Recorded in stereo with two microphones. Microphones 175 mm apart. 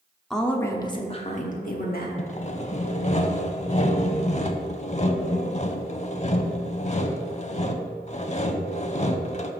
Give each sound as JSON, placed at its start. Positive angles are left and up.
{"t": 0.3, "sound": "a woman speaking", "side_deg": 0, "distance_m": 0.9}
{"t": 2.2, "sound": "sawing", "side_deg": 40, "distance_m": 0.5}